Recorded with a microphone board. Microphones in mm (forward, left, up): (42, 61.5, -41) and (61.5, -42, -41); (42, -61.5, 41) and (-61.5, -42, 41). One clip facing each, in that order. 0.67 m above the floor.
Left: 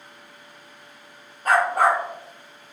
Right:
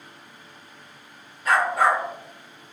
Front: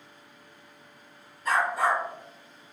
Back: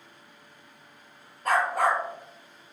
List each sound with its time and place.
1.4 s a dog barking: 145° left, 1.2 m